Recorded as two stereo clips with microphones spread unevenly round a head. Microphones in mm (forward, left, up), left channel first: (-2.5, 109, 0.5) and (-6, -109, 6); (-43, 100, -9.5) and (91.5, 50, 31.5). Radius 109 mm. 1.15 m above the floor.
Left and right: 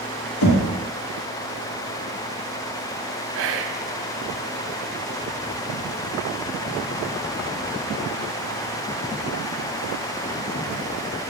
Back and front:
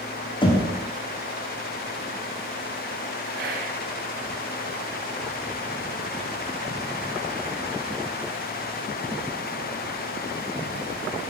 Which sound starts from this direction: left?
Knocking, at 0.4 s.